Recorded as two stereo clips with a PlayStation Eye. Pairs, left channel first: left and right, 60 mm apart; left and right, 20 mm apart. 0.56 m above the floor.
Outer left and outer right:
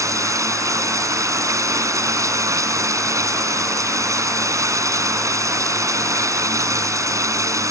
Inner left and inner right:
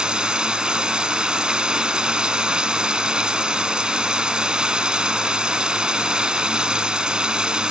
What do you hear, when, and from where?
0.0 s running water: 60° right (ahead or behind)